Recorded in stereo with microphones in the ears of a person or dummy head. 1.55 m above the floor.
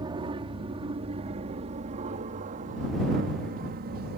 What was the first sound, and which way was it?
An aircraft, 25° right (ahead or behind).